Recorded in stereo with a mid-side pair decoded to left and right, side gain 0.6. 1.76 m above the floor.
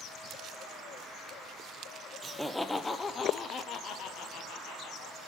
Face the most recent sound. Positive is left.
turn(degrees=70)